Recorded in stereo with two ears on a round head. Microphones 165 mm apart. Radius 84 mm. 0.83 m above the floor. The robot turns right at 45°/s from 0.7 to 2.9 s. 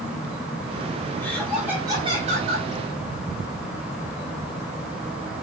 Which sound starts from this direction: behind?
Laughter, at 1.2 s.